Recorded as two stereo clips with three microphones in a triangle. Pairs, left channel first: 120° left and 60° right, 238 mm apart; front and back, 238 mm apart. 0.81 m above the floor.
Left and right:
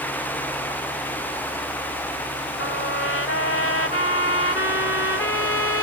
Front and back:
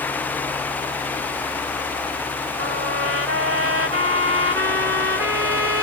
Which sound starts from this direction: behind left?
A trumpet, at 2.6 s.